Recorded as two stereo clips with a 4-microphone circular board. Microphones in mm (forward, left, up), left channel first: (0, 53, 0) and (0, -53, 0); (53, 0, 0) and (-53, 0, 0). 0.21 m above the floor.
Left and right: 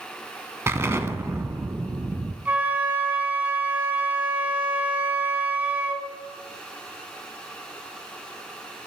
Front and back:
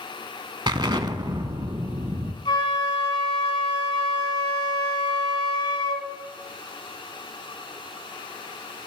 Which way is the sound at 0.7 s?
150° right.